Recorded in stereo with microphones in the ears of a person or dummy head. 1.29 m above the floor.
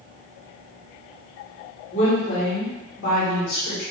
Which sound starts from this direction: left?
A woman speaking, at 1.9 s.